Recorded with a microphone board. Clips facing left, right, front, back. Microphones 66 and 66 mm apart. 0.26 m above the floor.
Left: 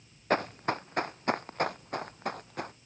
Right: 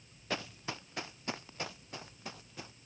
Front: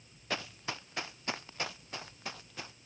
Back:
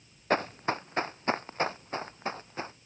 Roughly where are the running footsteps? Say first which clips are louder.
Left 11 dB, back 10 dB; behind left.